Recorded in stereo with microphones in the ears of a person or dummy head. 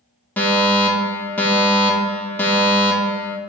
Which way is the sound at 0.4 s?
10° left (ahead or behind).